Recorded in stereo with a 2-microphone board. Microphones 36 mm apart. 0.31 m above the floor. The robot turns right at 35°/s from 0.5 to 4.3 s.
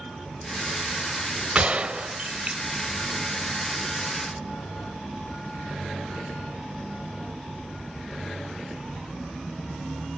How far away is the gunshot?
About 0.6 m.